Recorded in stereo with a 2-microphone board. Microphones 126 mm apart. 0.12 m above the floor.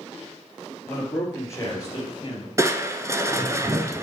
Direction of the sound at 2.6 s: 25° right (ahead or behind).